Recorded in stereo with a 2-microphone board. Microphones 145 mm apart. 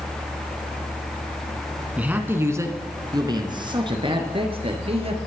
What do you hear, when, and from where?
2.0 s a man speaking: 10° right (ahead or behind), 1.5 m; by 5.2 s 40° right (ahead or behind), 3 m